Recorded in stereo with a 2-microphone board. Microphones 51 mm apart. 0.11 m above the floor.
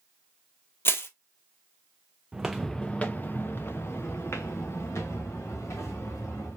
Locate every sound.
0.8 s crushing: 50° left (ahead or behind), 0.9 m
2.3 s footsteps: 15° right (ahead or behind), 0.6 m; by 6.6 s 70° left (ahead or behind), 2.5 m